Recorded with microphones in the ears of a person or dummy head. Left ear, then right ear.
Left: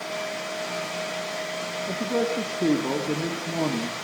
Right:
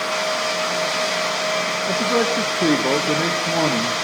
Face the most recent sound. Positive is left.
turn(degrees=-55)  # may be behind; listen again after turning